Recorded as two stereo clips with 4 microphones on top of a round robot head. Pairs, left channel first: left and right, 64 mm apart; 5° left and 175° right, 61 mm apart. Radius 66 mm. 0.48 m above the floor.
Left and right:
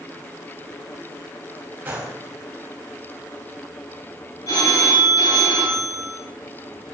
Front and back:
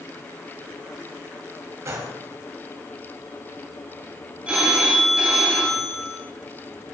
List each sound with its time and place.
1.9 s a gunshot: 150° right, 1.8 m
4.5 s a phone ringing: 115° left, 2.5 m